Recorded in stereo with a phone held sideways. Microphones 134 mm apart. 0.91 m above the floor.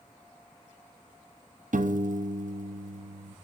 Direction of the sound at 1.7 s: 75° right (ahead or behind).